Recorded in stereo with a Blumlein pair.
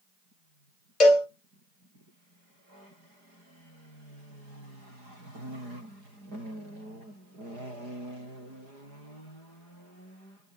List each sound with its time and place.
1.0 s a cowbell: 30° left, 1.1 m